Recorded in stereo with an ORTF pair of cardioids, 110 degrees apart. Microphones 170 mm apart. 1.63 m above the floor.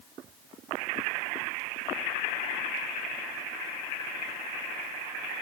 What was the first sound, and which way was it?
Only background noise.